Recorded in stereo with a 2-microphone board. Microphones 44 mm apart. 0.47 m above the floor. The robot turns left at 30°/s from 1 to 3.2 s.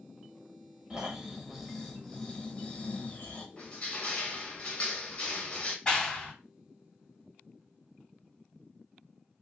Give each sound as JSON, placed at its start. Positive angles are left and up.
{"t": 0.9, "sound": "snoring", "azimuth_deg": -160, "distance_m": 1.0}
{"t": 3.6, "sound": "crushing", "side_deg": 30, "distance_m": 1.1}
{"t": 5.8, "sound": "a clap", "side_deg": 20, "distance_m": 1.6}